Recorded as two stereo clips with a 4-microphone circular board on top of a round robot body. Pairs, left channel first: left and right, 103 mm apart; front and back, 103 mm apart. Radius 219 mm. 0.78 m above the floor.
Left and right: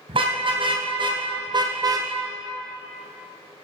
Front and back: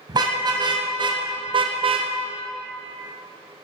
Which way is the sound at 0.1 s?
130° right.